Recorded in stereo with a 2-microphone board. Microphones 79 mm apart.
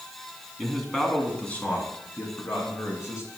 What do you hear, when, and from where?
0.6 s a man speaking: centre (ahead or behind), 2 m; by 3.3 s 45° left (ahead or behind), 3 m